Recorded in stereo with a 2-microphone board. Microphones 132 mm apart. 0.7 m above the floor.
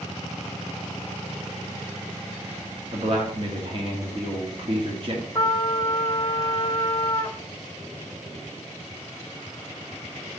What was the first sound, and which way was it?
A man speaking, 40° right (ahead or behind).